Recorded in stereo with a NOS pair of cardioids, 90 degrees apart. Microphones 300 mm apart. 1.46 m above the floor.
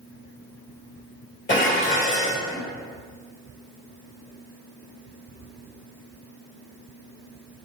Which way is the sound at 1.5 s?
40° left.